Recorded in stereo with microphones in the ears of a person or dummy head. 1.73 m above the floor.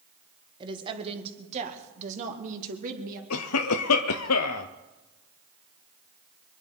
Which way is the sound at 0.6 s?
25° right (ahead or behind).